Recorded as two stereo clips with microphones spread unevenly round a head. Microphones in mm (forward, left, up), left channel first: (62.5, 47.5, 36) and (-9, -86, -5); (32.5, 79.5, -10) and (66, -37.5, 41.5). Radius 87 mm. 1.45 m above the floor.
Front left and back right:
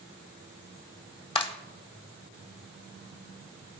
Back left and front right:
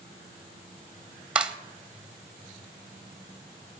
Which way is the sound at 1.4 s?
5° left.